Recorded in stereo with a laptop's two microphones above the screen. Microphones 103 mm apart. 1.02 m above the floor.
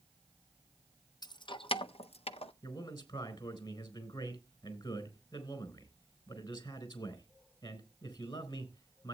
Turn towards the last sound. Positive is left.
turn(degrees=50)  # may be behind; listen again after turning